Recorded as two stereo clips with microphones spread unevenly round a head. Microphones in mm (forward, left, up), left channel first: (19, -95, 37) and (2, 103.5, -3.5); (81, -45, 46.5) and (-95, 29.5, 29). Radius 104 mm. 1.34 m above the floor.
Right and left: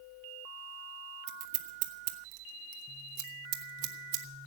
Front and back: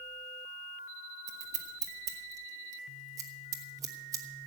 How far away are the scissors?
About 1.3 m.